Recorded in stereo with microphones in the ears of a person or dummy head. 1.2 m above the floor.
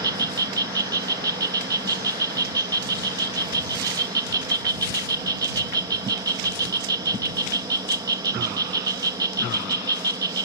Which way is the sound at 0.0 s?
20° right (ahead or behind).